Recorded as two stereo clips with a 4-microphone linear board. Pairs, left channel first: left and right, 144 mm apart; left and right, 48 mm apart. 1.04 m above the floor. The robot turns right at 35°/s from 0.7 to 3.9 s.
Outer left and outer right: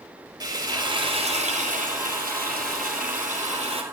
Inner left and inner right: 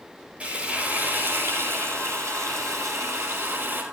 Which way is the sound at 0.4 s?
150° right.